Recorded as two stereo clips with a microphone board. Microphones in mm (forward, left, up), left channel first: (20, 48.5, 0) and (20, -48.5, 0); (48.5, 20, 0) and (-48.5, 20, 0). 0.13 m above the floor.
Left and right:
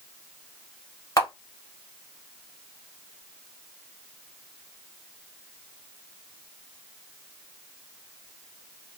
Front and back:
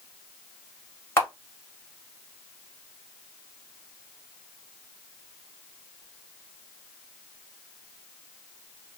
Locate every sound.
1.2 s a camera shutter: 50° left, 1.3 m